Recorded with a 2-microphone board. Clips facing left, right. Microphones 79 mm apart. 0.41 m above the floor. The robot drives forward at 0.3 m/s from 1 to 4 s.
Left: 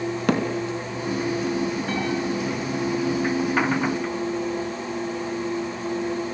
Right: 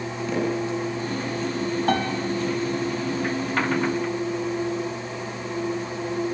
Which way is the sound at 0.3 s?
70° left (ahead or behind).